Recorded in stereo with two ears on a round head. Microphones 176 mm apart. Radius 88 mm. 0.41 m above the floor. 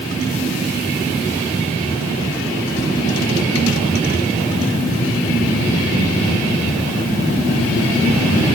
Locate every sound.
Only background noise.